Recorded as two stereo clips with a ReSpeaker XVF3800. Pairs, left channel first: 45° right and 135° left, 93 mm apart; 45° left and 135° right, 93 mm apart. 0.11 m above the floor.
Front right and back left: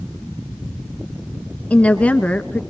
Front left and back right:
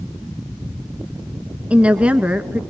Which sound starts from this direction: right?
A woman speaking, at 1.7 s.